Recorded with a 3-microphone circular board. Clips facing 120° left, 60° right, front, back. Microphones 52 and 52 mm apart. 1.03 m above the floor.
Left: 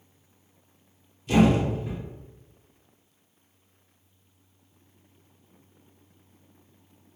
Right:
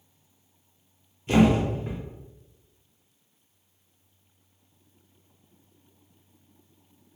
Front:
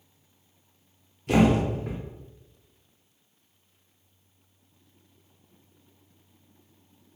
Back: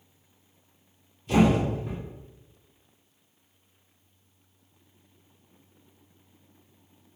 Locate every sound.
1.3 s a thud: 5° right, 0.9 m